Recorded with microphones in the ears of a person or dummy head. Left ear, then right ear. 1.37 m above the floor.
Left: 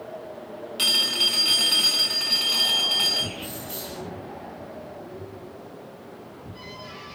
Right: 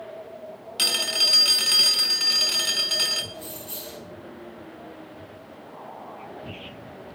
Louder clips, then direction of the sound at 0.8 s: Left 1 dB; 15° right (ahead or behind).